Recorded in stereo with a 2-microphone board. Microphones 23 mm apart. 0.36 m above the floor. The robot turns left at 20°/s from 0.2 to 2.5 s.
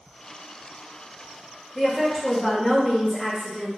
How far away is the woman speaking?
About 1.3 m.